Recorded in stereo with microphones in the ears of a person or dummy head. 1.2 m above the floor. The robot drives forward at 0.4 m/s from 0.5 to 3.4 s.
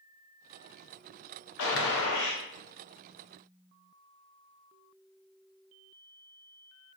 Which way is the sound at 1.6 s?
70° left (ahead or behind).